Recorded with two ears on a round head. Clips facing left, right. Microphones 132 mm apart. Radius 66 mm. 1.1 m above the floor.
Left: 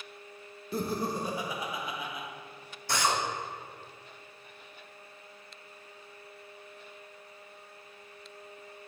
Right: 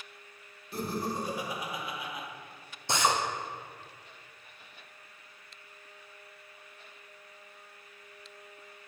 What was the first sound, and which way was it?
Laughter, 70° left (ahead or behind).